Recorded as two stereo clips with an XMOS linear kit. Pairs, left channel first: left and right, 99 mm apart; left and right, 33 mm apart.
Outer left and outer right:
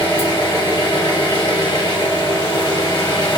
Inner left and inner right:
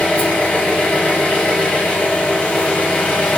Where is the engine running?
45° left (ahead or behind), 1.6 m.